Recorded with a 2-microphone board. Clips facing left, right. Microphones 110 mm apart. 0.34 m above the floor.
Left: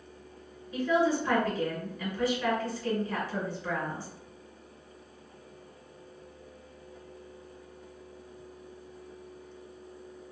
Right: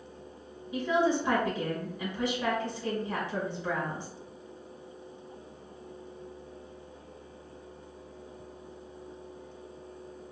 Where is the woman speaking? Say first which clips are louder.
Left 1 dB; 20° right (ahead or behind), 1.0 m.